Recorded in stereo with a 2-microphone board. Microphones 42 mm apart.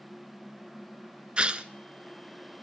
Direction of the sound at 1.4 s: 30° right (ahead or behind).